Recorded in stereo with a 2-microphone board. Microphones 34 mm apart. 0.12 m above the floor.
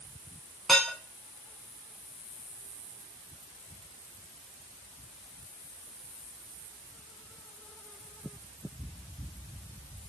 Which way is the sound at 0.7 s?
5° left (ahead or behind).